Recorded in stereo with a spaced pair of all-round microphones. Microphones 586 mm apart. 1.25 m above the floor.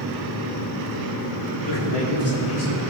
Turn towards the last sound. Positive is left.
turn(degrees=50)  # may be behind; listen again after turning